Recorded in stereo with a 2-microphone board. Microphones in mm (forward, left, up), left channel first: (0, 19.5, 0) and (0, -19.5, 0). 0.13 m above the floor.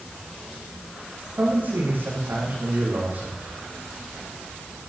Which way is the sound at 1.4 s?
55° right (ahead or behind).